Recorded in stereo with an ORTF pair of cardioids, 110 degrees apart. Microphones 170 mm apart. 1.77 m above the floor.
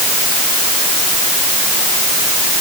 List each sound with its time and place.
Only background noise.